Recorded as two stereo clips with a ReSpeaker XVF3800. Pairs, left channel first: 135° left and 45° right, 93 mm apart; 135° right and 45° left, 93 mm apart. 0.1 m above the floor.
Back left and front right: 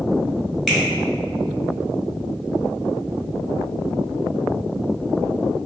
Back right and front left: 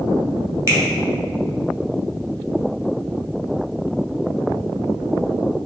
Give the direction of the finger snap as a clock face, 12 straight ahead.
10 o'clock.